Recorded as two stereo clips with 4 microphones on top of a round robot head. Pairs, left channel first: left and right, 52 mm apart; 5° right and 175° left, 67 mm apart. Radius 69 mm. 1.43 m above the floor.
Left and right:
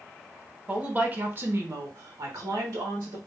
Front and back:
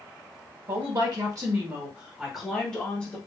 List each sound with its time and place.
0.7 s a woman speaking: 160° right, 1.3 m; by 3.2 s 75° right, 1.3 m